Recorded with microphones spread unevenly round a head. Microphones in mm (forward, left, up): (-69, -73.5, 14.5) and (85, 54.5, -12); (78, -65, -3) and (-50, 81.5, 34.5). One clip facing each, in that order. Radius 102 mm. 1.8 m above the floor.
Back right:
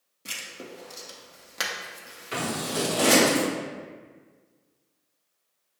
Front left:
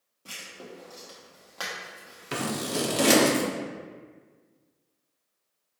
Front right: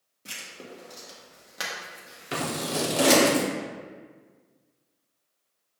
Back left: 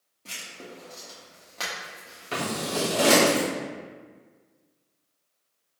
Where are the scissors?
25° left, 0.9 m.